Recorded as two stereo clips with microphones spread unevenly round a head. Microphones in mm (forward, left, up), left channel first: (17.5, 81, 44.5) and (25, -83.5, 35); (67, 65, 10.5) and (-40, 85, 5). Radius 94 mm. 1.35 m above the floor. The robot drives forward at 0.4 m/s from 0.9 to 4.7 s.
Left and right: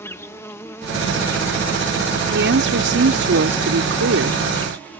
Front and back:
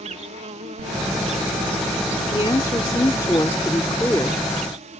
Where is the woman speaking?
75° right; by 4.5 s 90° right.